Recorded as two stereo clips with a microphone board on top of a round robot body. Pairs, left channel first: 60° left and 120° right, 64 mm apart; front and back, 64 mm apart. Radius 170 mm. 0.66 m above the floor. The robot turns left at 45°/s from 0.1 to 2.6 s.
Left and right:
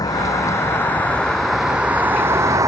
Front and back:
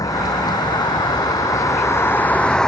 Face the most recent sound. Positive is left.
turn(degrees=-80)